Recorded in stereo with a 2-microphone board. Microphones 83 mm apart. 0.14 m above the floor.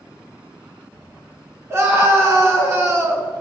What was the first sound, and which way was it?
A scream, 35° right (ahead or behind).